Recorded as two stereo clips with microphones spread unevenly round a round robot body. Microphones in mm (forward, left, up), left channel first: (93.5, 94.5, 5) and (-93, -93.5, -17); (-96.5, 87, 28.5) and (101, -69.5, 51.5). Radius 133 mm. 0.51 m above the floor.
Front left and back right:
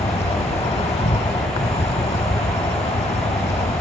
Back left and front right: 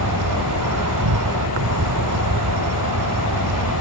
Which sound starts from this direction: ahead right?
An insect, at 0.0 s.